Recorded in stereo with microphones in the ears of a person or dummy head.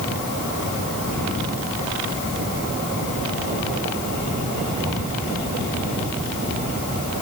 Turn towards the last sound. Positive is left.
No sound to turn to.